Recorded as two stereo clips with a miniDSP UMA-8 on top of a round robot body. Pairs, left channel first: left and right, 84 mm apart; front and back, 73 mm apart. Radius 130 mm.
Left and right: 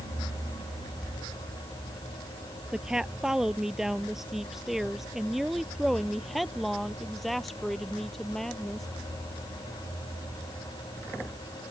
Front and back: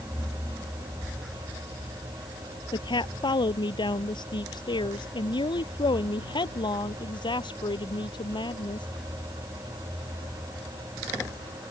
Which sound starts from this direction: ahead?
A woman speaking, at 2.7 s.